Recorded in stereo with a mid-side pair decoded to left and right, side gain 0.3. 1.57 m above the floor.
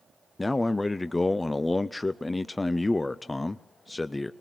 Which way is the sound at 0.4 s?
35° left.